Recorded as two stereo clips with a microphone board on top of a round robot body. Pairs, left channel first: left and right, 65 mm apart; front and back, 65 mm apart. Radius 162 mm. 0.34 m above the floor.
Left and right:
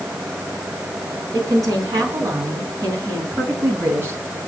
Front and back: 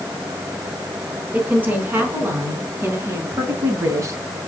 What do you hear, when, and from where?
1.3 s a woman speaking: 115° right, 5 m; by 4.2 s 145° right, 3.5 m